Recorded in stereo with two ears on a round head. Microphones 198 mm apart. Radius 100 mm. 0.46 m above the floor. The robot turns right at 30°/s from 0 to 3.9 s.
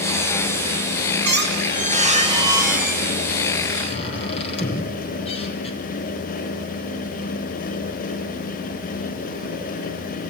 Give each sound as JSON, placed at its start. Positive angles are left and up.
{"t": 1.2, "sound": "a squeak", "azimuth_deg": -55, "distance_m": 3.5}